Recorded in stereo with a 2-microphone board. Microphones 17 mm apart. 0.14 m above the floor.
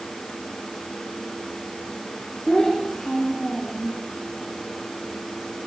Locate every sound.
2.5 s a child speaking: 25° left (ahead or behind), 8 m; by 4.0 s 20° left (ahead or behind), 7.5 m